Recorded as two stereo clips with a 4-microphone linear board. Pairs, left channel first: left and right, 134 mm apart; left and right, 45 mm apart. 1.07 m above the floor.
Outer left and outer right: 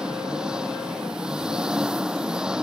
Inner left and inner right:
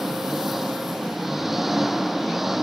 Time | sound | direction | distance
0.0 | an engine running | 5° right (ahead or behind) | ?